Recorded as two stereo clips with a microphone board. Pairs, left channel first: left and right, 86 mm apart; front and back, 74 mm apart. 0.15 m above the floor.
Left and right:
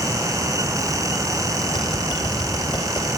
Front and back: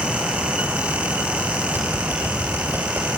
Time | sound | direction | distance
1.7 | typing on a keyboard | 120° left | 3 m